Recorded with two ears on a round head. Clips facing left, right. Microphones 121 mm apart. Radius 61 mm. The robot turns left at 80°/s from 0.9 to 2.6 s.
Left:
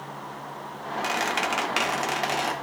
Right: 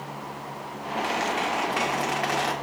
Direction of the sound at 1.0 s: 130° left.